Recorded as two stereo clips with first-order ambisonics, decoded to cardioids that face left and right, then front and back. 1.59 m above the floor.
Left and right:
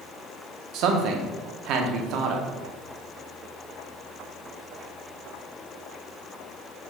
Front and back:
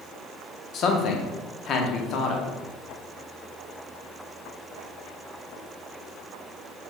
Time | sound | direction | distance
0.7 | a man speaking | 50° right | 0.5 m